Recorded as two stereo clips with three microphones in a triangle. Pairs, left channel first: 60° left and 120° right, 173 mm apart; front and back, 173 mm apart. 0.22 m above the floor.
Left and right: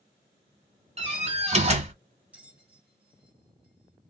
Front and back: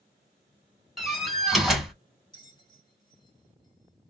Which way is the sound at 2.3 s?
45° right.